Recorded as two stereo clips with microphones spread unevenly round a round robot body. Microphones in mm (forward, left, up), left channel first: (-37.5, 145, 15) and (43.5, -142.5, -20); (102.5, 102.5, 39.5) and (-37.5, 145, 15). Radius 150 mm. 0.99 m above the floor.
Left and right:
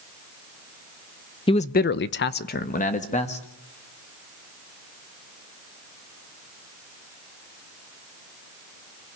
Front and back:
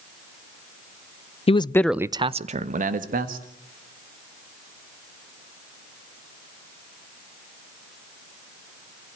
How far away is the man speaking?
About 0.8 m.